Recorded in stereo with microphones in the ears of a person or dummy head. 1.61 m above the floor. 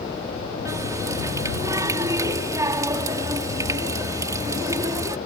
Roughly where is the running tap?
Centre.